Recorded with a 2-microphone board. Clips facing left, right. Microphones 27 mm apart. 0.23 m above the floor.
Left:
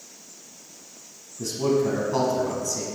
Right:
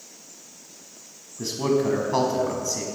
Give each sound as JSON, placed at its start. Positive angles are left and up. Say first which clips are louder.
{"t": 1.4, "sound": "a man speaking", "louder": "even", "side_deg": -30, "distance_m": 1.3}